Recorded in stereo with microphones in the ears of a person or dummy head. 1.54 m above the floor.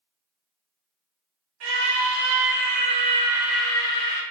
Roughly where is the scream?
Right.